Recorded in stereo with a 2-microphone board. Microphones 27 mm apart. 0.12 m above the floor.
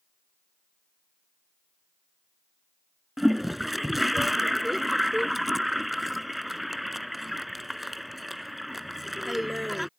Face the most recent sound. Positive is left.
turn(degrees=-5)  # may be behind; listen again after turning